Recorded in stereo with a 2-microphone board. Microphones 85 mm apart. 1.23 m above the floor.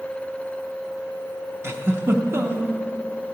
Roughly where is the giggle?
Right.